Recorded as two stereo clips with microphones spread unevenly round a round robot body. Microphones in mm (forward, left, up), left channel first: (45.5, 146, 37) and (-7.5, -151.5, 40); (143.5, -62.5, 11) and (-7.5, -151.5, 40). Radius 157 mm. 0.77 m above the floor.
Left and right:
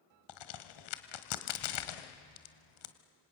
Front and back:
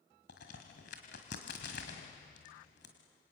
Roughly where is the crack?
Left.